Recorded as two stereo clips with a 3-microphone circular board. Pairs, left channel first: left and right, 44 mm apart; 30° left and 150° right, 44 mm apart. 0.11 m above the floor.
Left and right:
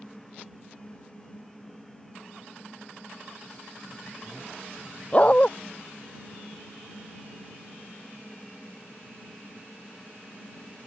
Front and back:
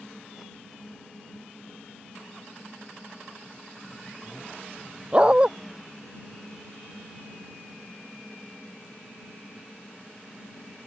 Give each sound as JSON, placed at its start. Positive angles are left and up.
{"t": 5.1, "sound": "a dog barking", "azimuth_deg": 150}